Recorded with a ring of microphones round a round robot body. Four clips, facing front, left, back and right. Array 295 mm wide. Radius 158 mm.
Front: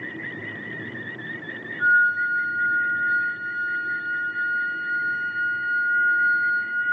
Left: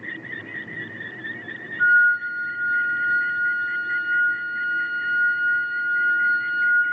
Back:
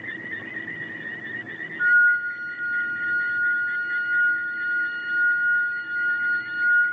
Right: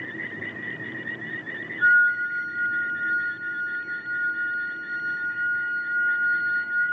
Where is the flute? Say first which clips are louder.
Left 2 dB, back 1 dB; 90° left, 3.5 m.